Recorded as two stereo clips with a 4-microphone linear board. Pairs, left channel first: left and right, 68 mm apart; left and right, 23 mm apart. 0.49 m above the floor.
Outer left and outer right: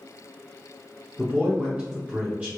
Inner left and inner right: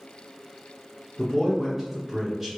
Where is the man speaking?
20° right (ahead or behind), 0.9 m.